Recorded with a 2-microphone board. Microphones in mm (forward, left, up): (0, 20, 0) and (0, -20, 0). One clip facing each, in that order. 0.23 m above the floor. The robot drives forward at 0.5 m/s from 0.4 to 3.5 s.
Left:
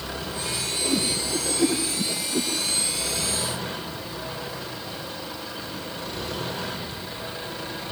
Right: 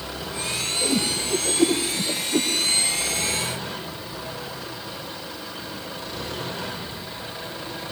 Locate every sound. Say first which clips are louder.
0.8 s a whoosh: right 1 dB; 60° right (ahead or behind), 7 m; by 2.5 s 70° right (ahead or behind), 6.5 m